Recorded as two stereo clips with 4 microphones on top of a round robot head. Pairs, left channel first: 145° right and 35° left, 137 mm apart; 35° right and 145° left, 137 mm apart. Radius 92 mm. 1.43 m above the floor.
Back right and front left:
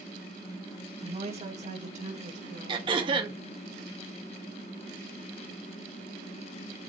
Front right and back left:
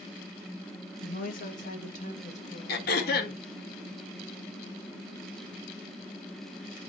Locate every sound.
1.0 s a woman speaking: 15° right, 2.5 m; by 3.5 s 15° left, 3.5 m
2.7 s throat clearing: 20° right, 1.6 m